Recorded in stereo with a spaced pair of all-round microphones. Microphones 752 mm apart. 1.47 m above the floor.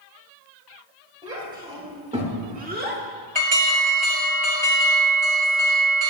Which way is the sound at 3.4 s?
35° right (ahead or behind).